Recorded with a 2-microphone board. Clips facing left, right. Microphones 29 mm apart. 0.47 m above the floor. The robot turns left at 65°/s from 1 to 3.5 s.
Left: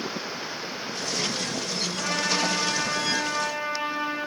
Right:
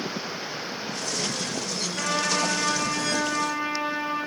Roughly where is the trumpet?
Behind right.